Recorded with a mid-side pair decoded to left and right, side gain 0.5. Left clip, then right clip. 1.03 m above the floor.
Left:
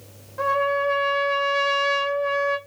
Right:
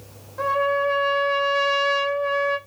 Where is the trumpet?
10° left, 2.5 m.